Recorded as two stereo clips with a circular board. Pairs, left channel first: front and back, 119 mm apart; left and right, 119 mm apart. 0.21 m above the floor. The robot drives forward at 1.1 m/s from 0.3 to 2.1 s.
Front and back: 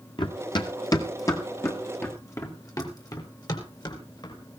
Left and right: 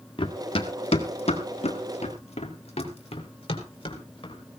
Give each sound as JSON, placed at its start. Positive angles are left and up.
{"t": 0.2, "sound": "running footsteps", "azimuth_deg": 50, "distance_m": 1.3}